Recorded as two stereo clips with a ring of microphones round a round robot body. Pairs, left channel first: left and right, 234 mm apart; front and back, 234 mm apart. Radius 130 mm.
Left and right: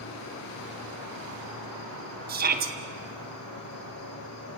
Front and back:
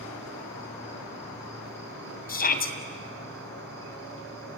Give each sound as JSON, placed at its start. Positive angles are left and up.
{"t": 0.0, "sound": "an insect", "azimuth_deg": 80, "distance_m": 5.5}
{"t": 2.3, "sound": "a shout", "azimuth_deg": -45, "distance_m": 2.5}